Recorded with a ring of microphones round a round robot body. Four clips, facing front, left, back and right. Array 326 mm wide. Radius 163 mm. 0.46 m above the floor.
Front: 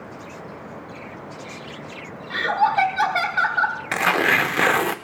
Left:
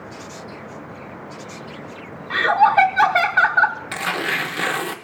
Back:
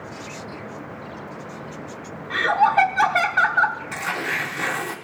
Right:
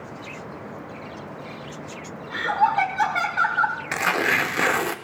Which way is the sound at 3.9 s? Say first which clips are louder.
Right 2 dB, front 7 dB; 15° right.